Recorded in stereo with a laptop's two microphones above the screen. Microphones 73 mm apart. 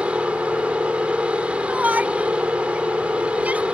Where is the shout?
20° right (ahead or behind).